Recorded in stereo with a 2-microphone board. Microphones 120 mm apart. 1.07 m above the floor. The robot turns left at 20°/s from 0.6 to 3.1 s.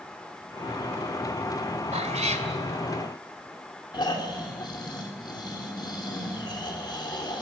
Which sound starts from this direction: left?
Snoring, at 3.9 s.